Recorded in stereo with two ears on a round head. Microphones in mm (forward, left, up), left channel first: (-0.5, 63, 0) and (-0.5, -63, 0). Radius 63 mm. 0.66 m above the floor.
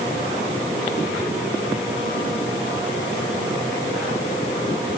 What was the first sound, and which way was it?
Only background noise.